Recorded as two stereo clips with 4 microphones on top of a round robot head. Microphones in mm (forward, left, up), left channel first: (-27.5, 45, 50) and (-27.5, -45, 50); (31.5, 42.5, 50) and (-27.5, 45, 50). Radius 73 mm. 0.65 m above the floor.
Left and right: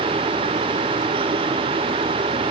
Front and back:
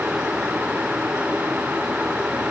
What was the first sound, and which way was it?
Only background noise.